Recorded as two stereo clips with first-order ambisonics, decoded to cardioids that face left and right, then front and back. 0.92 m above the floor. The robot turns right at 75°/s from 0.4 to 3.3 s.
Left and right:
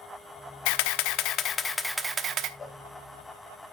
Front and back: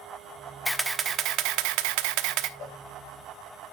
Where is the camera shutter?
85° left, 0.8 m; by 2.5 s 135° right, 0.8 m.